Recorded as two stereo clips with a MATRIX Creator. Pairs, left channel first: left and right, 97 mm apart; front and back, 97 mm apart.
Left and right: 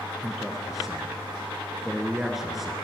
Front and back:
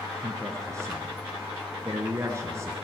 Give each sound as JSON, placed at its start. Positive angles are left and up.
{"t": 0.2, "sound": "a man speaking", "azimuth_deg": -175, "distance_m": 1.3}